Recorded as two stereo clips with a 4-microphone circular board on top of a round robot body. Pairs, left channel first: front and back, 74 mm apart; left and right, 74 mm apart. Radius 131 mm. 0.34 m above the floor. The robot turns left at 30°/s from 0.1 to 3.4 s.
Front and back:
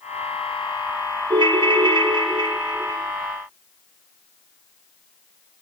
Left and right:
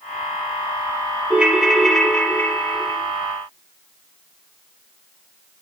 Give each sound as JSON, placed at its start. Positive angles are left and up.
{"t": 1.3, "sound": "a ringtone", "azimuth_deg": -165, "distance_m": 0.5}